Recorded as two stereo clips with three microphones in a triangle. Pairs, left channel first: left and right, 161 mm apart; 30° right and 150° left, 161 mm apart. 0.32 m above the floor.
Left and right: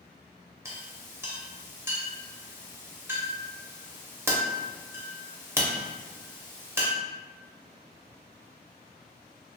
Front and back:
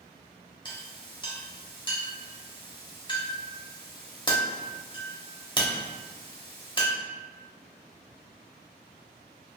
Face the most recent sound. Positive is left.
turn(degrees=-30)